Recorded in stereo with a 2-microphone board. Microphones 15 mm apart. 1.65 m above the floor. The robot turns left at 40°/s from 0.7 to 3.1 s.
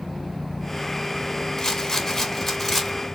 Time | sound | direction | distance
1.6 | a rattle | 55° left | 1.5 m